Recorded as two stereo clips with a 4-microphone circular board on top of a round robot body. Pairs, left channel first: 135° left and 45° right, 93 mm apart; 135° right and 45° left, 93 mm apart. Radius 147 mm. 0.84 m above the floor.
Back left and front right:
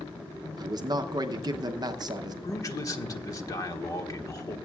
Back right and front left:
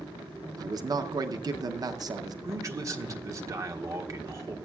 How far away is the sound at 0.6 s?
About 0.7 m.